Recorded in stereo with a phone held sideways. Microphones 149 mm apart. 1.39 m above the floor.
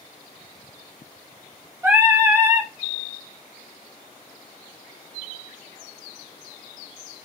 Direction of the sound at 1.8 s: 15° right (ahead or behind).